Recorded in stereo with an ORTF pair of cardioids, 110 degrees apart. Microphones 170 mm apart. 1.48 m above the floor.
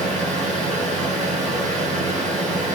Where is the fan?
45° right, 1.6 m.